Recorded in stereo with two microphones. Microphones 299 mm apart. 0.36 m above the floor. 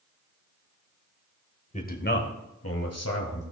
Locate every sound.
1.7 s a man speaking: 25° left (ahead or behind), 1.4 m; by 3.4 s 60° left (ahead or behind), 2 m